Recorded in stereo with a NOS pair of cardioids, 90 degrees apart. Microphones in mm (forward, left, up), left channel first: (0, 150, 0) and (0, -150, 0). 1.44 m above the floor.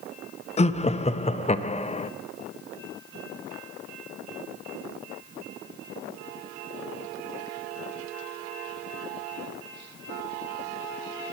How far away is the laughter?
About 0.6 m.